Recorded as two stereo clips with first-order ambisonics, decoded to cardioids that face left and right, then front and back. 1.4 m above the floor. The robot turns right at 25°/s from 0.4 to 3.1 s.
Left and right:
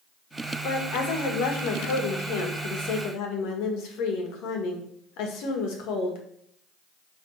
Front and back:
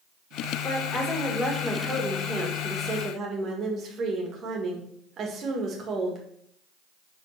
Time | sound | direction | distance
0.6 | a woman speaking | 60° left | 1.9 m